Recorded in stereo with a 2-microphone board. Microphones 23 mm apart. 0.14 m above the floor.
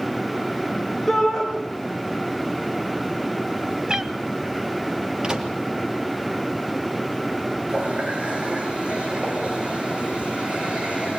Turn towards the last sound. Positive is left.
turn(degrees=-55)  # may be behind; listen again after turning